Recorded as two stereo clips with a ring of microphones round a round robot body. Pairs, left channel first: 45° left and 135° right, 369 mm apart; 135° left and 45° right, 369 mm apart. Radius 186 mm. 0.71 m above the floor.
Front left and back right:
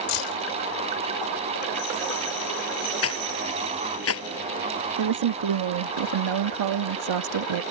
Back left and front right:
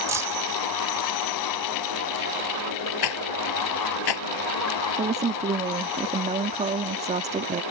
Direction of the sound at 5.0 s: 115° right.